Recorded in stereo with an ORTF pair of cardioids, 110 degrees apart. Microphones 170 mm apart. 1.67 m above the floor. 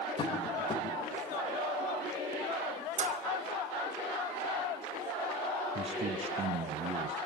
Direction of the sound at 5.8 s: 35° right.